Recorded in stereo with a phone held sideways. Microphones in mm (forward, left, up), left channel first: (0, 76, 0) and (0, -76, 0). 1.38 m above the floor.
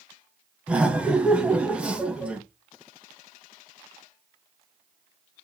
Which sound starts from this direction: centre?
Laughter, at 0.7 s.